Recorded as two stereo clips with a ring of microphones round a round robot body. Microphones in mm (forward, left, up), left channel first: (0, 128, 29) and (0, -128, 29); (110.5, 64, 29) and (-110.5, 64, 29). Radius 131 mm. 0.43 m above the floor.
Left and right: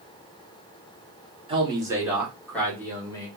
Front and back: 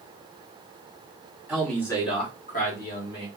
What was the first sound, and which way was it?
A man speaking, 105° right.